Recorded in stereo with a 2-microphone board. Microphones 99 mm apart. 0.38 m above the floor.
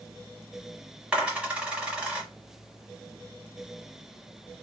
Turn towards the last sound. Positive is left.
turn(degrees=-15)  # may be behind; listen again after turning